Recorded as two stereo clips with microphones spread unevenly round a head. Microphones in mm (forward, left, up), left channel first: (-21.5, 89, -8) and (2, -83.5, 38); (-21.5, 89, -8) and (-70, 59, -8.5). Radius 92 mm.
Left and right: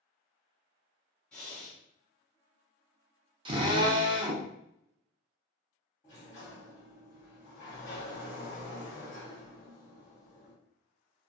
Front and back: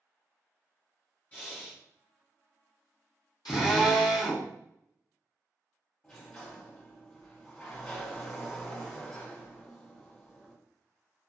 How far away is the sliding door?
About 1.4 m.